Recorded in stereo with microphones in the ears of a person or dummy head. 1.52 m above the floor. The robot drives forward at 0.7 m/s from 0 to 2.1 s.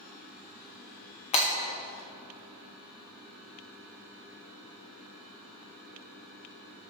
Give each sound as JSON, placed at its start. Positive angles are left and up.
{"t": 1.3, "sound": "breaking glass", "side_deg": 35, "distance_m": 1.3}